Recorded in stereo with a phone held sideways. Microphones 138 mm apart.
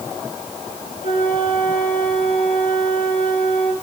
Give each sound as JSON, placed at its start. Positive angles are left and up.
{"t": 1.0, "sound": "a flute", "side_deg": 70, "distance_m": 5.0}